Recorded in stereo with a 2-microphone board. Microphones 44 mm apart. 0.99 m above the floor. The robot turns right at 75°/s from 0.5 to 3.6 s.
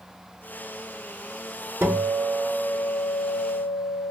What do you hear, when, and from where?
1.8 s a guitar: 75° right, 0.8 m; by 4.1 s 60° left, 0.8 m